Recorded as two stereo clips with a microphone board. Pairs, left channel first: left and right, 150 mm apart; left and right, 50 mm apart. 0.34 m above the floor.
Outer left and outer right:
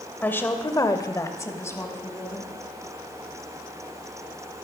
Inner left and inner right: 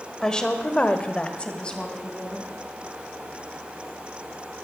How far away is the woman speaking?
About 1.1 m.